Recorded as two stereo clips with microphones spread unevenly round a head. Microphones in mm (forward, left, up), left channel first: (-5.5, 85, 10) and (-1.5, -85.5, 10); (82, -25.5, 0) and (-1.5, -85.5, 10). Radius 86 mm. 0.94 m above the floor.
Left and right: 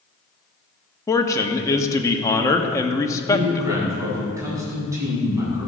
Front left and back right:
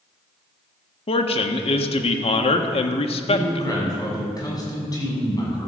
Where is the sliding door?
No sliding door in this recording.